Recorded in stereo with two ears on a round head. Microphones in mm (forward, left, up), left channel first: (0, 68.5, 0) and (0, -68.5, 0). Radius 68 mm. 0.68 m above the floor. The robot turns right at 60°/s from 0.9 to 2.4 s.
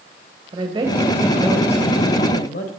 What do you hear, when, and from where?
0.5 s a woman speaking: 30° right, 2.5 m; by 2.7 s 60° left, 2.5 m